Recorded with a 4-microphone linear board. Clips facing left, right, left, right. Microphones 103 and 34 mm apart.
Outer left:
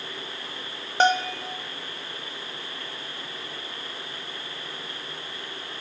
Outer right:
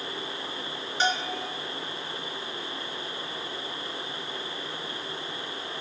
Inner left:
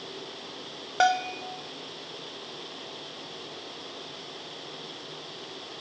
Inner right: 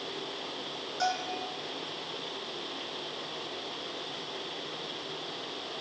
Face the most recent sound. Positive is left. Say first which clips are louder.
# outer left 7 dB, inner left 8 dB
turn(degrees=50)  # may be behind; listen again after turning